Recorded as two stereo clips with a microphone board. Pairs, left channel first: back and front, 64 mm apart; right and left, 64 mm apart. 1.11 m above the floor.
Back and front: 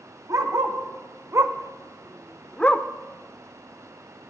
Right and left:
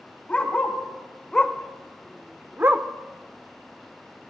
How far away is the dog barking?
About 2 m.